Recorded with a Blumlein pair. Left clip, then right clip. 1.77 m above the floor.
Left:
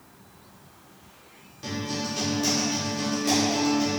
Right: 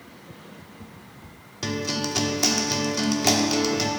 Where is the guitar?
45° right, 0.9 m.